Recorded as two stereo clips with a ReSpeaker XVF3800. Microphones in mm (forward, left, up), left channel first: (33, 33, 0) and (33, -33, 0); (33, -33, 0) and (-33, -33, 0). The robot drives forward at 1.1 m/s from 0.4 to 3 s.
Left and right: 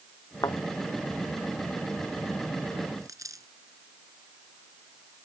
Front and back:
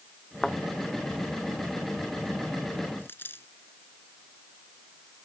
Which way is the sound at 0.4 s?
80° left.